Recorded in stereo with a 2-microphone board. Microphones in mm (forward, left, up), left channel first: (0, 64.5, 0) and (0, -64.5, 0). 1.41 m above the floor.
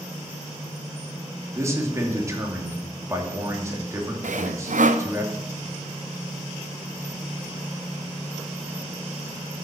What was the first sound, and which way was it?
A man speaking, 25° right (ahead or behind).